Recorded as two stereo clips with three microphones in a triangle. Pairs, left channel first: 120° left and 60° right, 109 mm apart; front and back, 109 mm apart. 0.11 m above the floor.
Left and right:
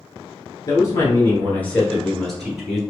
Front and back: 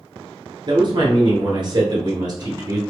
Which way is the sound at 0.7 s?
160° left.